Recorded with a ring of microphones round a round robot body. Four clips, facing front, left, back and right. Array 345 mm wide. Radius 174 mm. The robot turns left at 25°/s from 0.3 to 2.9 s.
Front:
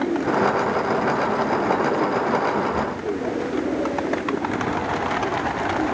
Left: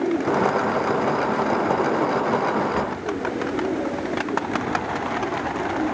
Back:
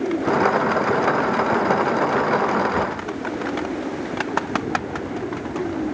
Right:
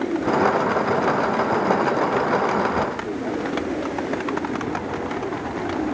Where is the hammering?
I don't hear hammering.